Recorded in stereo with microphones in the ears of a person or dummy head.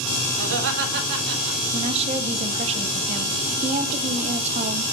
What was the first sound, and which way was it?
Laughter, 75° right (ahead or behind).